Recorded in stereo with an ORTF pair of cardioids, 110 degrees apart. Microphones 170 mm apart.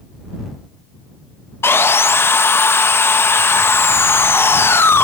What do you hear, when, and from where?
1.6 s sawing: 15° left